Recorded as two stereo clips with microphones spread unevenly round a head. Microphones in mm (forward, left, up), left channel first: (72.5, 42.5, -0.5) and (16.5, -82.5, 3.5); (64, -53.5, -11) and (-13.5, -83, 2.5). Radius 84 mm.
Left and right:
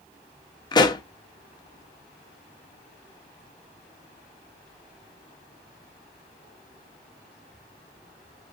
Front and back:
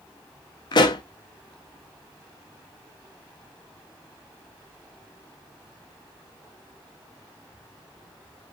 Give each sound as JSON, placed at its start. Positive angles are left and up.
{"t": 0.7, "sound": "a pop", "azimuth_deg": 15, "distance_m": 0.7}